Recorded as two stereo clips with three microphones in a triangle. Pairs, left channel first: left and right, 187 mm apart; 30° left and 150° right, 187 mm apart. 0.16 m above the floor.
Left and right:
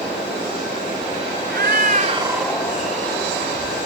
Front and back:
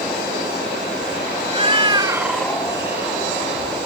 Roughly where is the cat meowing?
Right.